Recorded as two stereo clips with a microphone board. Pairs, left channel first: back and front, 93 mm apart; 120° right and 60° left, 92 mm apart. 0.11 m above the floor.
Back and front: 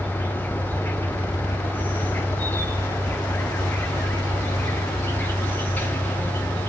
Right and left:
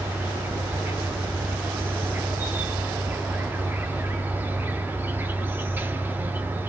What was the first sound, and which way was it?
An insect, 120° left.